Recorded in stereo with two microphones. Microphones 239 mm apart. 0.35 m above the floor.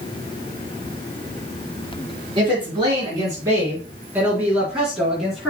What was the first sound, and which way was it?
A woman speaking, 20° right (ahead or behind).